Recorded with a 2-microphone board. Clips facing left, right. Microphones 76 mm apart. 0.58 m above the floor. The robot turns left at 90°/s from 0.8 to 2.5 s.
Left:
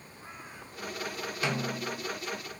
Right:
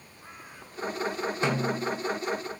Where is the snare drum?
145° right, 0.9 m; by 2.0 s 160° left, 0.9 m.